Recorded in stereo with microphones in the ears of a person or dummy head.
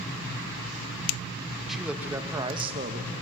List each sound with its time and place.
1.7 s a man speaking: centre (ahead or behind), 1.6 m; by 3.2 s 55° right (ahead or behind), 1.4 m